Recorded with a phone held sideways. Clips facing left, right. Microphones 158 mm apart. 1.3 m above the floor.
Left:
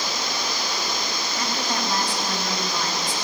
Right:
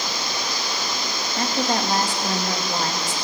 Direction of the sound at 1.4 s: 45° right (ahead or behind).